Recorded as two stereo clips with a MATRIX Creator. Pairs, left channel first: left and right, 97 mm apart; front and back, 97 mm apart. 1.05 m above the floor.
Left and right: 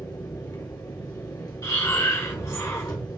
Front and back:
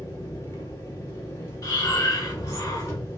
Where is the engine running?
55° left, 1.1 m.